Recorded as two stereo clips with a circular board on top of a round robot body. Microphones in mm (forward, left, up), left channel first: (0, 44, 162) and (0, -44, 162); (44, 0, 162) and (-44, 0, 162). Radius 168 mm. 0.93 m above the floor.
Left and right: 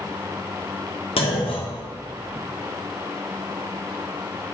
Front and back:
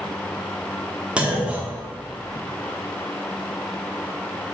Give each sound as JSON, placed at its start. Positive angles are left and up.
{"t": 1.2, "sound": "a clunk", "azimuth_deg": 100, "distance_m": 1.6}